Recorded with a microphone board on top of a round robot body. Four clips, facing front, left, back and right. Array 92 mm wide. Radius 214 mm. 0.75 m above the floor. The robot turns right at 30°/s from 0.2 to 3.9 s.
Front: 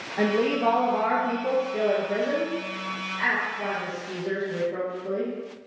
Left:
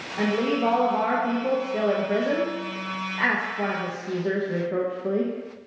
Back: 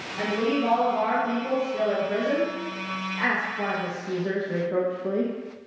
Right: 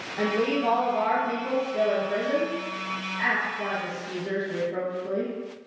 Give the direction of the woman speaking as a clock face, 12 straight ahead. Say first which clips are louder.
Left 1 dB, front 2 dB; 11 o'clock.